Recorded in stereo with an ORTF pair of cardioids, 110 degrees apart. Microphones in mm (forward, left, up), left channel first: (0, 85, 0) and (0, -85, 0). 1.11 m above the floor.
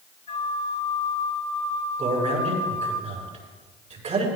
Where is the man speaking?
40° right, 6 m.